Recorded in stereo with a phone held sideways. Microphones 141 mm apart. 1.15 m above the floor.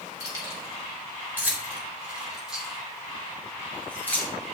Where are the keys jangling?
25° right (ahead or behind), 3.5 m; by 4.5 s 15° left (ahead or behind), 3 m.